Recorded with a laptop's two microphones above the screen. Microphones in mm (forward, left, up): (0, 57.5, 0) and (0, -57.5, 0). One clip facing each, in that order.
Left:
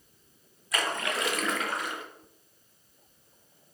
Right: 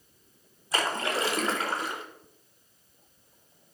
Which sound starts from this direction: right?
A splash, at 0.7 s.